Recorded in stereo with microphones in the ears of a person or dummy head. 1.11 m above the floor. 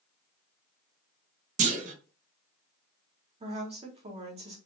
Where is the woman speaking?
35° right (ahead or behind), 1.0 m.